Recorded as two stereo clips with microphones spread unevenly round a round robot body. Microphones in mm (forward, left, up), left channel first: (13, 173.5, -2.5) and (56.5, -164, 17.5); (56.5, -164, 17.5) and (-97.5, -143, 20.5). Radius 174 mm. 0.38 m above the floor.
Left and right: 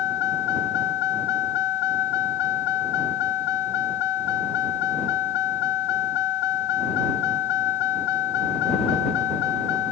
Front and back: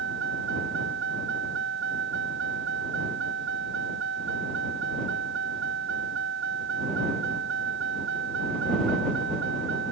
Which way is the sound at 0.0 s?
130° left.